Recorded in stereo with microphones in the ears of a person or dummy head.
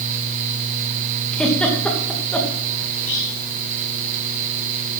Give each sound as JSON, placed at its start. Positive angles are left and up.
{"t": 1.3, "sound": "a giggle", "side_deg": 5, "distance_m": 2.5}
{"t": 2.9, "sound": "whispering", "side_deg": 40, "distance_m": 5.0}